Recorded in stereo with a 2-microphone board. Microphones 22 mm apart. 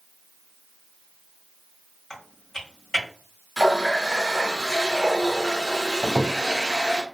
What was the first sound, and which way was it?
Typing on a keyboard, 20° left (ahead or behind).